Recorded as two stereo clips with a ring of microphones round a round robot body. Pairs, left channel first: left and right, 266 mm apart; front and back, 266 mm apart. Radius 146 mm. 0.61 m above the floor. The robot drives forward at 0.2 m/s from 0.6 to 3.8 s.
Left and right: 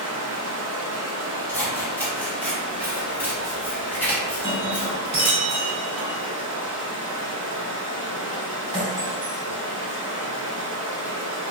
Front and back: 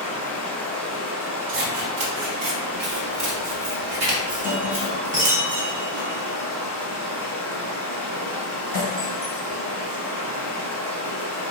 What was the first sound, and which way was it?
Running water, 85° right.